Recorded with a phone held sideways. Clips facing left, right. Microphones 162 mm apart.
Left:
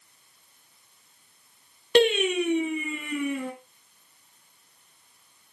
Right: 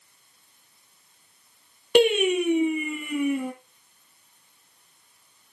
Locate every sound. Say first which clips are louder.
1.9 s singing: right 2 dB; 10° right (ahead or behind), 3.5 m